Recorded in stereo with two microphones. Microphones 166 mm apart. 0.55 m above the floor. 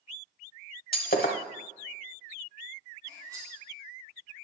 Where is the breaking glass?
70° left (ahead or behind), 0.9 m.